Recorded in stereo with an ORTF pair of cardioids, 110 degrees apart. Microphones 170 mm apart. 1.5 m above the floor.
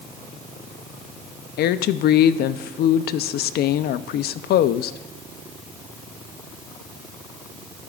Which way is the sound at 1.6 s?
65° left.